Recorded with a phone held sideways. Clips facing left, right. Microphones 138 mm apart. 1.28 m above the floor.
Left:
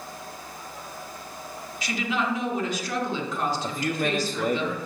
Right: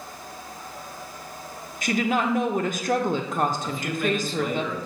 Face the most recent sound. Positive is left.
turn(degrees=45)  # may be behind; listen again after turning